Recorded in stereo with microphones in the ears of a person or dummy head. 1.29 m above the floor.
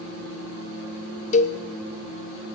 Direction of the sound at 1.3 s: 40° left (ahead or behind).